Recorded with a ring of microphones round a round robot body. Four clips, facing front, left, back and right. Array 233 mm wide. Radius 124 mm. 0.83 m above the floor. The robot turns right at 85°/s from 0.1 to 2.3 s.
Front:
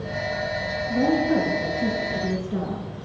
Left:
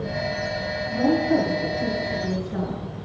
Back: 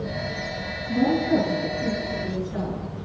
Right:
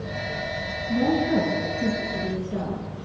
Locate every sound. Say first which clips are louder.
0.9 s a woman speaking: left 1 dB, even; 160° right, 9.5 m; by 2.9 s 40° right, 9.5 m